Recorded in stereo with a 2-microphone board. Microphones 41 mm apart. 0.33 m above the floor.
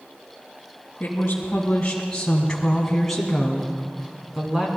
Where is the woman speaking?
40° left (ahead or behind), 2.5 m; by 4.7 s 15° right (ahead or behind), 3 m.